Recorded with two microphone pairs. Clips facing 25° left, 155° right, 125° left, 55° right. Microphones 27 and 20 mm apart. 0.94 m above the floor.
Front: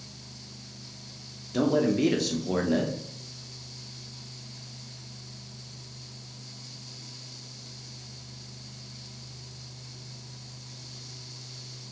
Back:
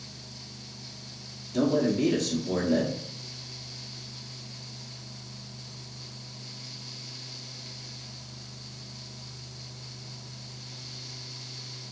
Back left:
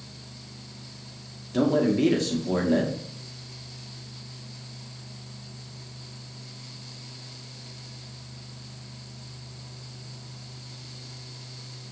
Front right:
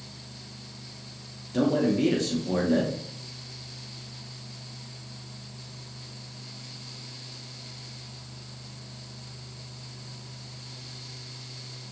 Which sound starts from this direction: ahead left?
A man speaking, at 1.5 s.